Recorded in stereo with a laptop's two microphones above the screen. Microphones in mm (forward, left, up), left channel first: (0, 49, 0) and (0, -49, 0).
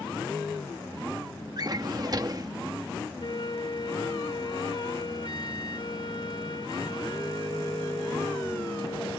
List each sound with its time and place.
1.6 s a drawer: 40° right (ahead or behind)
3.2 s a flute: 50° left (ahead or behind)